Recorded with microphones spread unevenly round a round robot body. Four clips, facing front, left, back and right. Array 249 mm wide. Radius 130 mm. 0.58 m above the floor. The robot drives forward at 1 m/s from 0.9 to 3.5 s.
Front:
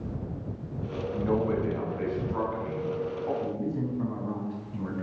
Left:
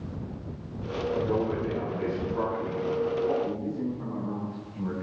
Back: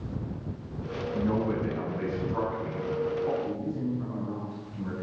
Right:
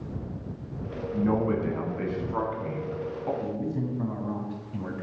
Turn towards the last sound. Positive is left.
turn(degrees=-75)